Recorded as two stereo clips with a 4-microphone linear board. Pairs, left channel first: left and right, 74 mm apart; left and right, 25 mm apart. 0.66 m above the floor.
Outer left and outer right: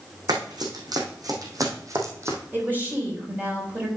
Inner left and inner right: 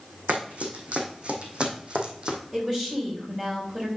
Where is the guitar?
I don't hear a guitar.